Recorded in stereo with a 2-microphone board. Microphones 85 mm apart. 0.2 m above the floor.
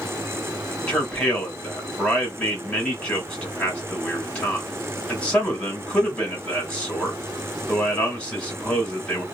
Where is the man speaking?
15° left (ahead or behind), 1.4 m.